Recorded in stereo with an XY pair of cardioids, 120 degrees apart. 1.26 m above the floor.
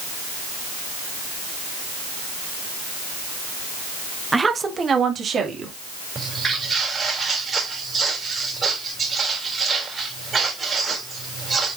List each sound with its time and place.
4.3 s a woman speaking: 15° right, 1.0 m; by 5.7 s 45° right, 3 m
6.2 s footsteps: 30° right, 4.5 m